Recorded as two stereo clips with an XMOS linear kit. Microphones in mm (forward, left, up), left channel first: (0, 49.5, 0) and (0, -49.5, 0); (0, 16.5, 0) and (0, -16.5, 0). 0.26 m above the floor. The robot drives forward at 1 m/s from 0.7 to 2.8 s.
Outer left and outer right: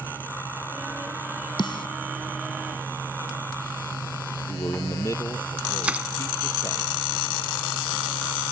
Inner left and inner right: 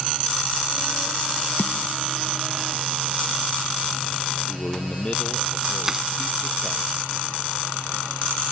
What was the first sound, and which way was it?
A snare drum, 55° left (ahead or behind).